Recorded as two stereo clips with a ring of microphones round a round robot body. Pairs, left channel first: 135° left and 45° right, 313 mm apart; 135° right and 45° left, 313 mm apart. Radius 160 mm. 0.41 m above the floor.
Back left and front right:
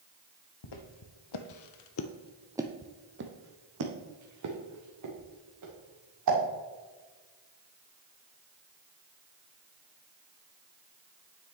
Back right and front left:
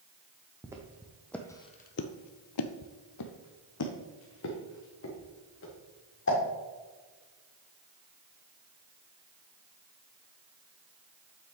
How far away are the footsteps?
About 1.4 m.